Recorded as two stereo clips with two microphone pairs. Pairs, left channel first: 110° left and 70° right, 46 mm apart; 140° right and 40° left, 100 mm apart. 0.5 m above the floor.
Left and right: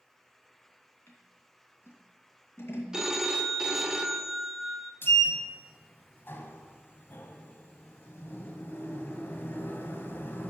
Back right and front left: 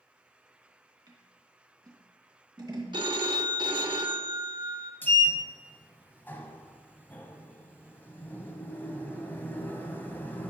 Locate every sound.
1.1 s scissors: 80° left, 2.5 m
2.9 s a phone ringing: 10° left, 0.8 m
5.0 s a sliding door: 145° left, 1.1 m